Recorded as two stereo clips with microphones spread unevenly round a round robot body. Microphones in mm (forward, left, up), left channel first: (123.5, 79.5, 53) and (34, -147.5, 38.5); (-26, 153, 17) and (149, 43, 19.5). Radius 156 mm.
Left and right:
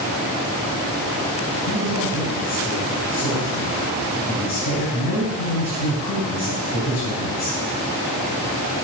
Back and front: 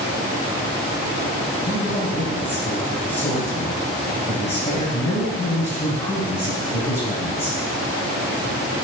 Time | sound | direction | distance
1.7 | a man speaking | 90° left | 4 m